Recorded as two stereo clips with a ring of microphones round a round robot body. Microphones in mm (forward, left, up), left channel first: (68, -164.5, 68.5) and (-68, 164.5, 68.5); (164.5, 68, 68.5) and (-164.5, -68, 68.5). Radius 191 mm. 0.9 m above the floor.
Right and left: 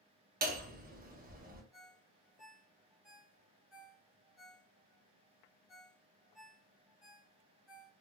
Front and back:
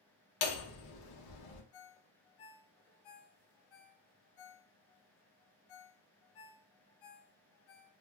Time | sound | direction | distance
0.4 | hammering | 50° left | 0.8 m
1.7 | a ringtone | 25° left | 1.0 m